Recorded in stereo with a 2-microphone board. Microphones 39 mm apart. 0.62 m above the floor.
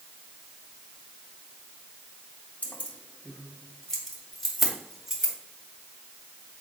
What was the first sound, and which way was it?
Keys jangling, 45° left (ahead or behind).